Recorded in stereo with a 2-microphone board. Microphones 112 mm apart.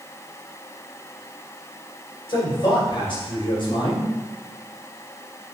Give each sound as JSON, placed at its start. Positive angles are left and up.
{"t": 2.3, "sound": "a man speaking", "side_deg": 50, "distance_m": 3.0}